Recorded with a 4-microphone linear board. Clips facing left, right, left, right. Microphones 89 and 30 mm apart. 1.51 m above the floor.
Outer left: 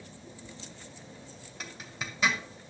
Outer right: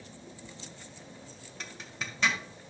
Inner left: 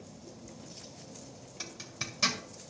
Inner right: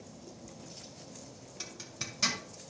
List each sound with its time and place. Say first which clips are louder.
1.6 s a zipper: outer left 1 dB, inner left 2 dB; 5° left (ahead or behind), 1.8 m